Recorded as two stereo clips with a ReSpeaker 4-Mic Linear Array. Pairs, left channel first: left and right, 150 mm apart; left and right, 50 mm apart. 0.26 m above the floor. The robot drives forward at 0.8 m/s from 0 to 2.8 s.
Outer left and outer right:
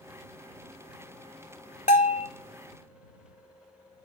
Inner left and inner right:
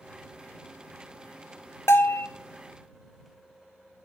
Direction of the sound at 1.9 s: 70° left (ahead or behind).